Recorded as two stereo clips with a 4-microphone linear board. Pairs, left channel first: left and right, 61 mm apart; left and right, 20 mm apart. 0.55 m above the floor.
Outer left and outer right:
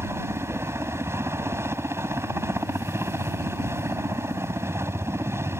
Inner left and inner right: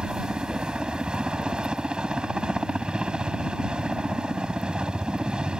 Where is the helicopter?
45° right (ahead or behind).